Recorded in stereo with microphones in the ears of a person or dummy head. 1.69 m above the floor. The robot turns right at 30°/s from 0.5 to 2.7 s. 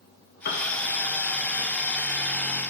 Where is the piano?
45° left (ahead or behind), 0.8 m; by 0.7 s 40° left (ahead or behind), 0.8 m.